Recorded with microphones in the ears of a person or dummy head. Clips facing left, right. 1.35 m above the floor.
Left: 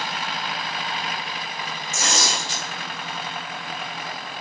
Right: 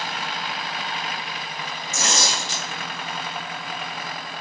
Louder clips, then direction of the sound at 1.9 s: Even; 75° right (ahead or behind).